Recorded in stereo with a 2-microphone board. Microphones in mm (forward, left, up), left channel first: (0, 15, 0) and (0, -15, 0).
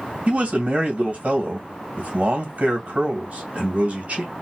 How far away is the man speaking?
About 2 m.